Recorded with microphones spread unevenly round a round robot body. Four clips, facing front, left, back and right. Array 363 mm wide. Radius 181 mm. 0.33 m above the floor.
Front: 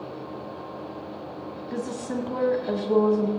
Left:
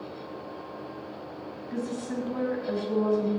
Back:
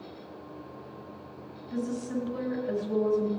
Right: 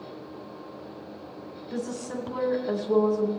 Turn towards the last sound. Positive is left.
turn(degrees=-20)